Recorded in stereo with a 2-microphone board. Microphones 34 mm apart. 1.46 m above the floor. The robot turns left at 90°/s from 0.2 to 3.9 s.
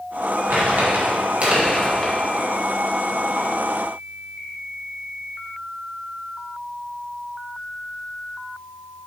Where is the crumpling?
55° right (ahead or behind), 1.8 m; by 2.1 s 25° left (ahead or behind), 1.8 m.